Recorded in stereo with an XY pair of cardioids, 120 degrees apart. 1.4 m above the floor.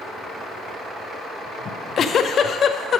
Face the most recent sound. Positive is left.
turn(degrees=50)